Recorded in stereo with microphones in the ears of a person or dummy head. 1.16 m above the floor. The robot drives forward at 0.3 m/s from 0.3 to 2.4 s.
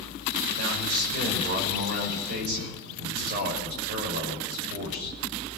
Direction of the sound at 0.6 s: 55° right (ahead or behind).